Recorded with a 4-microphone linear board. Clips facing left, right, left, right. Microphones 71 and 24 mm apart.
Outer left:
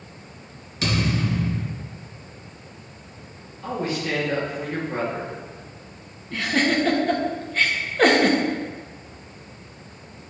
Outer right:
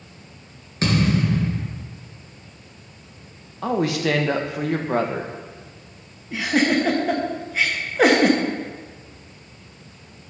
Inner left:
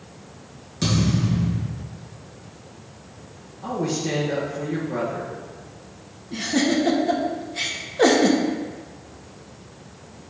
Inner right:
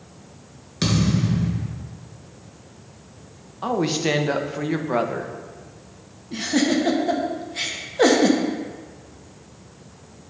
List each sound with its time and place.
0.8 s a thud: 35° right (ahead or behind), 3 m
3.6 s a woman speaking: 90° right, 0.9 m
6.3 s a giggle: 10° right (ahead or behind), 1.0 m